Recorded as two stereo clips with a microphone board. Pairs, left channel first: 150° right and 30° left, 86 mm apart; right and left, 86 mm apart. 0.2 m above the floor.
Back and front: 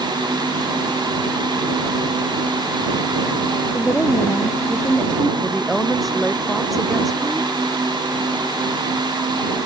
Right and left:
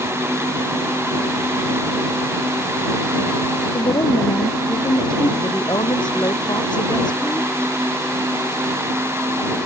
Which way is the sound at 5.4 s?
60° right.